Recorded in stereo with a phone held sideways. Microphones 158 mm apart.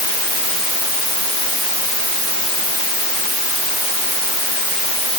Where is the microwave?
No microwave in this recording.